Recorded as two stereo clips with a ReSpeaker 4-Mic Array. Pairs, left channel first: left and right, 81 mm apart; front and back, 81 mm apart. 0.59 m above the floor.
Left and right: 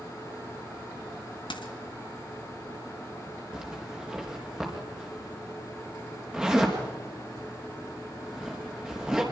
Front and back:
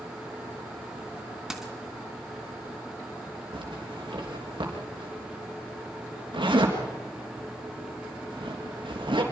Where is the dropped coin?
100° left, 1.7 m.